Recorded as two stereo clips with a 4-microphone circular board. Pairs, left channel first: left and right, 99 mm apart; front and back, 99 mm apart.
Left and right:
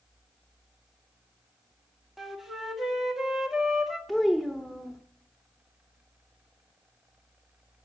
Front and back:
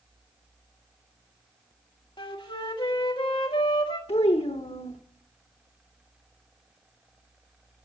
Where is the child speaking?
Straight ahead, 0.9 m.